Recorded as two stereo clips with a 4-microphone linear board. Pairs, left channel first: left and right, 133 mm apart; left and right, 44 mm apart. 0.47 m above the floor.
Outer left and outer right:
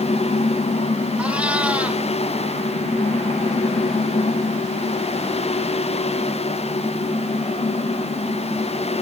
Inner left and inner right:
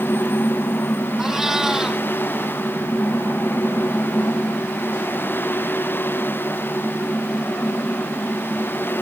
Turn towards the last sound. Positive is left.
turn(degrees=-10)  # may be behind; listen again after turning